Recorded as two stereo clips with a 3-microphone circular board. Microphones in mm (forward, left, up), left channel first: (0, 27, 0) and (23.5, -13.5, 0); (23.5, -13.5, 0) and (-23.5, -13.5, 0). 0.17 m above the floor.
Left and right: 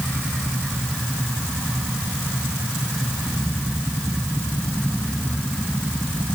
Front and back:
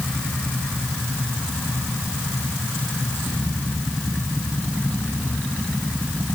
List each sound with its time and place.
Only background noise.